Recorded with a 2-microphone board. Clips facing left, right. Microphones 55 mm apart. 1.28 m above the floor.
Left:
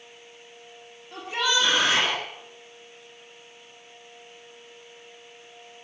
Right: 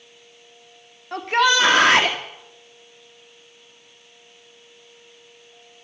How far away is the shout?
About 2.5 m.